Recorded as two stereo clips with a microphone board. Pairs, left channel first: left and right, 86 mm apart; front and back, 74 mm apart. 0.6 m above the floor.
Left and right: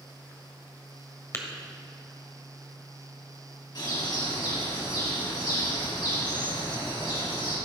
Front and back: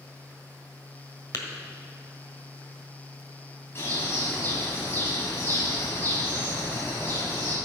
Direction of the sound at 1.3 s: 30° left.